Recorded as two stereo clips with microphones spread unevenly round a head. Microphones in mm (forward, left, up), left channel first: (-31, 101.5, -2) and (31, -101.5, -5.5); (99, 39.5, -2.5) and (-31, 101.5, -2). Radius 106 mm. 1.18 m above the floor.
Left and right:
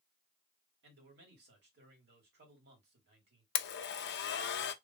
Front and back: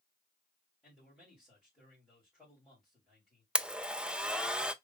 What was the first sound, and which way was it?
A man speaking, 115° right.